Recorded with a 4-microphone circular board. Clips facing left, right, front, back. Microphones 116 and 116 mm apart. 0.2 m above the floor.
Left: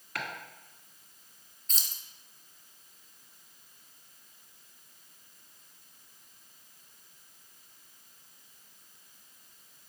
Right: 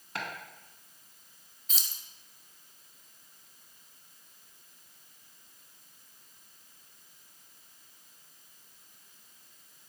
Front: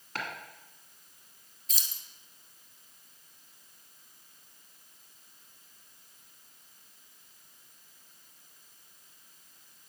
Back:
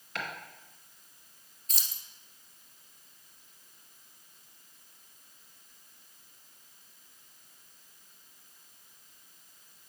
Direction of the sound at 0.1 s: 35° right.